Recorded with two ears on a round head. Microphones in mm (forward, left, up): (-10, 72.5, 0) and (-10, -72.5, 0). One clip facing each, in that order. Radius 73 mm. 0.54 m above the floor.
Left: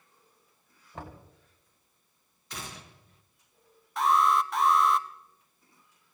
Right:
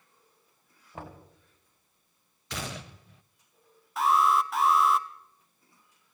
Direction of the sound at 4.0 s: Centre (ahead or behind).